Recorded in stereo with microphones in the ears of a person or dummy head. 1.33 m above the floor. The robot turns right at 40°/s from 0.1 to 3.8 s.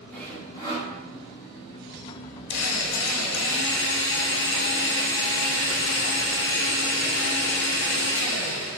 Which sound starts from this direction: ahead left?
A drill, at 2.5 s.